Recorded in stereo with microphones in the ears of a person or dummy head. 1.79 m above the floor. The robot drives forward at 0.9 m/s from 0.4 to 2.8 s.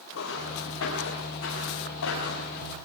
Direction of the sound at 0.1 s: 80° left.